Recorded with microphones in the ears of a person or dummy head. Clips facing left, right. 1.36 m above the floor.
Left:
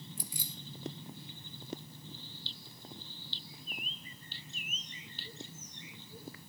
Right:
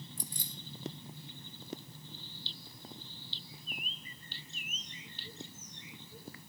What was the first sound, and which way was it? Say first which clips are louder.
Keys jangling: even; 10° left (ahead or behind).